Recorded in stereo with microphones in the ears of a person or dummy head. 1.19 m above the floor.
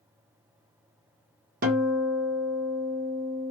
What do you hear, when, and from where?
1.6 s a guitar: 45° right (ahead or behind), 0.9 m